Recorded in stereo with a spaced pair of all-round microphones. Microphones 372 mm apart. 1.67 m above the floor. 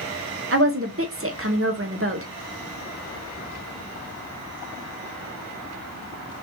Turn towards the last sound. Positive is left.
turn(degrees=-40)  # may be behind; listen again after turning